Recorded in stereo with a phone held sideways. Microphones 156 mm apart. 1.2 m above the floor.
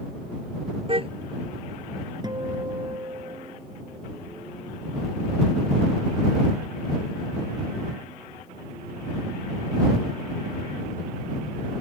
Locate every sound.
0.9 s a car horn: 35° right (ahead or behind)
2.2 s a guitar: 25° right (ahead or behind)